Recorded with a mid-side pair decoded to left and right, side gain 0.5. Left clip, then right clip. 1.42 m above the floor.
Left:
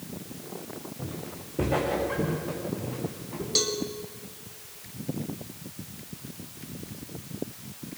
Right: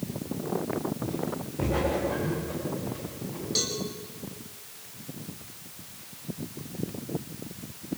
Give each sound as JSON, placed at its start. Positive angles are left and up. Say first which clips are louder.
{"t": 1.0, "sound": "footsteps", "louder": "right 7 dB", "azimuth_deg": 45, "distance_m": 9.0}
{"t": 3.5, "sound": "a cowbell", "louder": "left 3 dB", "azimuth_deg": 30, "distance_m": 3.0}